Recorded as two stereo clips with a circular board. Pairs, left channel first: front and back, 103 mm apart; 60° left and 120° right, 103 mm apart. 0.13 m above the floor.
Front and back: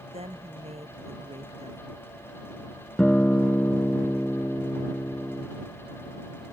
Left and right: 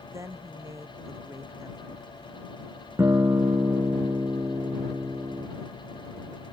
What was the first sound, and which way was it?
A woman speaking, straight behind.